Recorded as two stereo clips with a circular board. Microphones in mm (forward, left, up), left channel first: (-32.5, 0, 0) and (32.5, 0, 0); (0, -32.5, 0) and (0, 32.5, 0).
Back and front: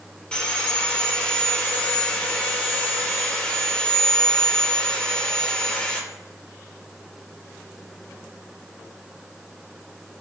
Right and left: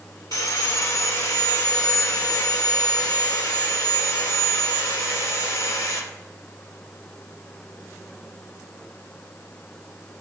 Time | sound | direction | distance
0.3 | sawing | 105° right | 1.9 m